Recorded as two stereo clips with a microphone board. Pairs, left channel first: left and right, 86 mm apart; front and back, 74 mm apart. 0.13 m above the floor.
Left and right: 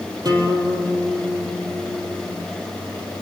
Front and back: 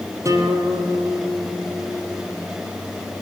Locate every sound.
0.2 s a guitar: 130° right, 4 m